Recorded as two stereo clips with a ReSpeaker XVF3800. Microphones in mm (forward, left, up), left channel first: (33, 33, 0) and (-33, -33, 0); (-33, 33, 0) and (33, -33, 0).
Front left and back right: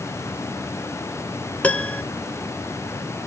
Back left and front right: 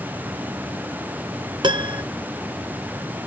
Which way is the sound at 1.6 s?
30° right.